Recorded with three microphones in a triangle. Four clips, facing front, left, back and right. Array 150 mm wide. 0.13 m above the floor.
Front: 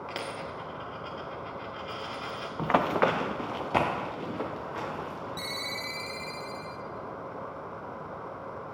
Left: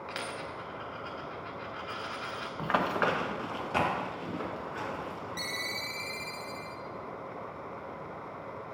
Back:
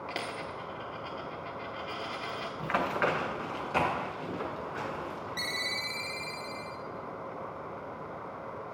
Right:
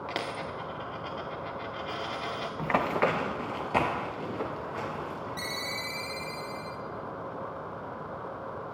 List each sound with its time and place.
0.1 s a dropped coin: 85° right, 1.1 m
2.6 s running footsteps: 15° right, 0.7 m; by 5.4 s 30° right, 3 m
5.4 s a ringtone: 15° right, 0.5 m